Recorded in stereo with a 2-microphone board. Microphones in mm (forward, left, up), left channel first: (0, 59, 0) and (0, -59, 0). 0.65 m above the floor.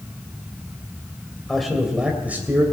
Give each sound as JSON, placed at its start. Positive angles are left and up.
{"t": 1.5, "sound": "a man speaking", "side_deg": 5, "distance_m": 2.5}